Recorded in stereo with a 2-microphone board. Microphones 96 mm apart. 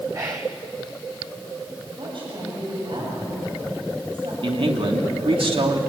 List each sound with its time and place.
0.1 s whispering: 35° right (ahead or behind), 0.8 m
2.0 s a woman speaking: 65° right (ahead or behind), 7.5 m
4.4 s a man speaking: 70° right (ahead or behind), 2.5 m